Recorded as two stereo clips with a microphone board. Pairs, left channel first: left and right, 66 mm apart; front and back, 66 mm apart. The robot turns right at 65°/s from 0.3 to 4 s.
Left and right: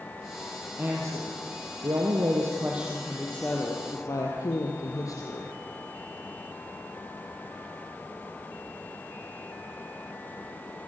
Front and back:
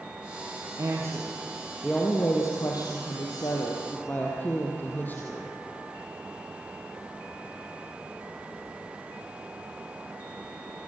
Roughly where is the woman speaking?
Behind right.